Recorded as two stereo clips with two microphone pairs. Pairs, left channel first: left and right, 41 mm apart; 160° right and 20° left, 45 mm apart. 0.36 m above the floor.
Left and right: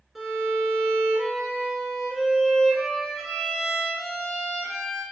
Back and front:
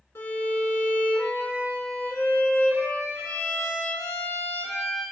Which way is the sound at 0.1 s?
175° right.